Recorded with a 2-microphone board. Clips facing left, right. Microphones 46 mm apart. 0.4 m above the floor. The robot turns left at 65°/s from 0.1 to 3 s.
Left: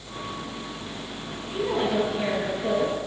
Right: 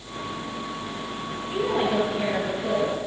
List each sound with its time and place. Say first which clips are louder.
1.5 s a woman speaking: right 1 dB; 130° right, 8 m; by 3.0 s 135° left, 8 m